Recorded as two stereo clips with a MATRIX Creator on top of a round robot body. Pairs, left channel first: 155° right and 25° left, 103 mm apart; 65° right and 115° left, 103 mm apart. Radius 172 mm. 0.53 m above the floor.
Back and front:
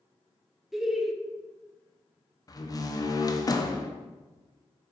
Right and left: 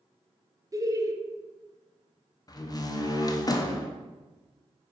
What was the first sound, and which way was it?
Laughter, 110° left.